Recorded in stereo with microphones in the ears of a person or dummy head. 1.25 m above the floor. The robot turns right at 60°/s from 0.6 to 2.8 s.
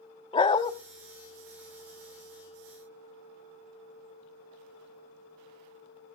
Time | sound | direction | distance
0.3 | a dog barking | 30° left (ahead or behind) | 0.9 m